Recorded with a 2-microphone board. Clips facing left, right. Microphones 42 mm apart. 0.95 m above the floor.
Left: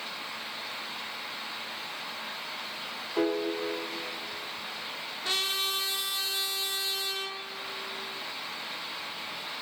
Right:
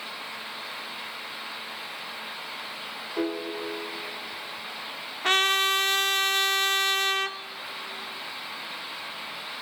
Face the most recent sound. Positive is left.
turn(degrees=-50)  # may be behind; listen again after turning